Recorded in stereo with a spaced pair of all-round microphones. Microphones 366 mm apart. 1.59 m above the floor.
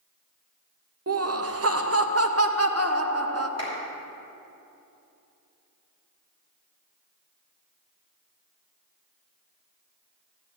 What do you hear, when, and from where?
1.1 s laughter: 40° right (ahead or behind), 0.7 m
3.6 s a clap: 45° right (ahead or behind), 3 m